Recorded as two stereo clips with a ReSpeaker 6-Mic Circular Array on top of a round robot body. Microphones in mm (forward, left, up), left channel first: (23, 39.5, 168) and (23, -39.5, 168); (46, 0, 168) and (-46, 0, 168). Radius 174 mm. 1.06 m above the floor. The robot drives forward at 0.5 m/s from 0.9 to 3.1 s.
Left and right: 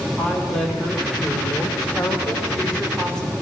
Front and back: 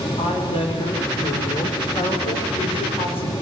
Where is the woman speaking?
5° left, 4.5 m; by 3.3 s 10° left, 3.5 m.